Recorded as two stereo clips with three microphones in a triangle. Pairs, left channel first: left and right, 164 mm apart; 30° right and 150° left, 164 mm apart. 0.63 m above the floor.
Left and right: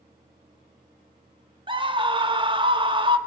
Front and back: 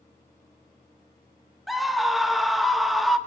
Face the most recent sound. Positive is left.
turn(degrees=-120)